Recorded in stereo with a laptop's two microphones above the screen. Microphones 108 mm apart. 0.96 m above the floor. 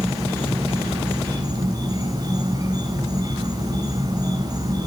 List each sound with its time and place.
0.0 s an insect: 35° right (ahead or behind), 9 m